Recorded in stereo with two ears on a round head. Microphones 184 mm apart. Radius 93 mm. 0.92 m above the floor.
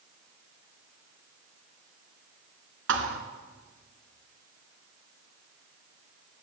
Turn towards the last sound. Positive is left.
turn(degrees=-60)  # may be behind; listen again after turning